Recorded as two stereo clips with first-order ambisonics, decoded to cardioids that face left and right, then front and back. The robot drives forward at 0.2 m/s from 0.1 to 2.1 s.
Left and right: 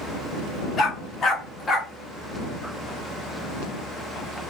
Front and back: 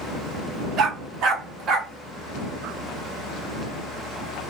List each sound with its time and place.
0.8 s a dog barking: 150° left, 0.9 m; by 1.9 s 155° left, 1.0 m